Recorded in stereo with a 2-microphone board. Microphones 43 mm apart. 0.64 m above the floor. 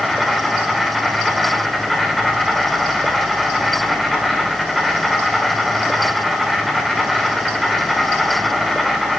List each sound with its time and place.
0.0 s an insect: centre (ahead or behind), 1.8 m